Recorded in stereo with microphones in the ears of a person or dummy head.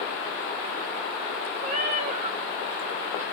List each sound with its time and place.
1.6 s a cat meowing: 40° right (ahead or behind), 0.5 m